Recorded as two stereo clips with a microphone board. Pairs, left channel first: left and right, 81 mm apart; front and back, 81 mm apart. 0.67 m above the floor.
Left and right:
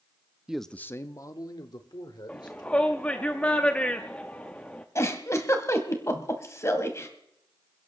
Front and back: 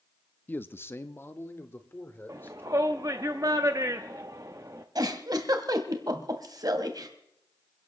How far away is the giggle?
About 1.6 m.